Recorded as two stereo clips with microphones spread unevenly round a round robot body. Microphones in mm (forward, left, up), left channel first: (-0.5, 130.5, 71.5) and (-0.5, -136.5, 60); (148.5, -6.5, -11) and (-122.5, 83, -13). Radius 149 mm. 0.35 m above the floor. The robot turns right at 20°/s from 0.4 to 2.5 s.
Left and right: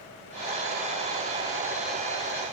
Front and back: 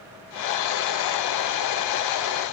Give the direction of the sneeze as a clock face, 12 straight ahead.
No sneeze in this recording.